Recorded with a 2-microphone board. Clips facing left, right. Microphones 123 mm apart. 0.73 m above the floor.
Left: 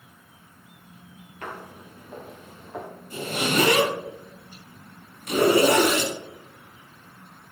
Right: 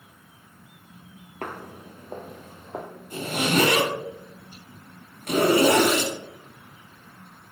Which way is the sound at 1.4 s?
45° right (ahead or behind).